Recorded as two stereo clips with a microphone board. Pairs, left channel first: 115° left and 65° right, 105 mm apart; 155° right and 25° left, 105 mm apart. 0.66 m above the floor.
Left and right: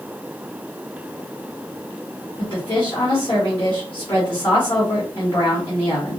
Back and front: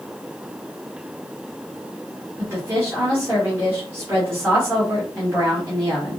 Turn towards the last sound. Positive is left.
turn(degrees=85)